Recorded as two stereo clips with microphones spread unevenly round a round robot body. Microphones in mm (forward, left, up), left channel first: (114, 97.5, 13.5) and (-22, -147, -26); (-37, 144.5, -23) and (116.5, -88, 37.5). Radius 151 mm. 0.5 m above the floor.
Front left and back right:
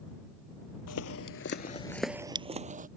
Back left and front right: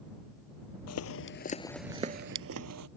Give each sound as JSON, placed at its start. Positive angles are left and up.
{"t": 0.9, "sound": "footsteps", "azimuth_deg": 85}